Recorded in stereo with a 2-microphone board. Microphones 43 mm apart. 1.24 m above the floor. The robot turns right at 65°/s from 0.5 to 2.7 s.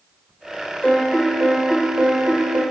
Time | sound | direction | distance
0.8 | a piano | 135° left | 1.3 m